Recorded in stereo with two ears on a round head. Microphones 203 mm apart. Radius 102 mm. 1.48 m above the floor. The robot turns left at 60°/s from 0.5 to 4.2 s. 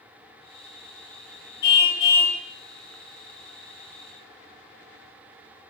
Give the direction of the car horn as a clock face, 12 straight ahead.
10 o'clock.